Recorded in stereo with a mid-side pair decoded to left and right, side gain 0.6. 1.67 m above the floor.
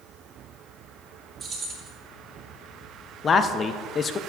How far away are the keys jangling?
About 3 m.